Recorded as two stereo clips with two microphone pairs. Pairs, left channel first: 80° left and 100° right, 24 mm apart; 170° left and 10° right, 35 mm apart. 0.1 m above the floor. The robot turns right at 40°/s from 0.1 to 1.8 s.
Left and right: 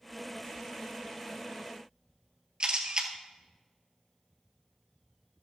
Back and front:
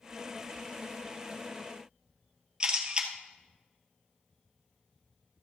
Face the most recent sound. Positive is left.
turn(degrees=-70)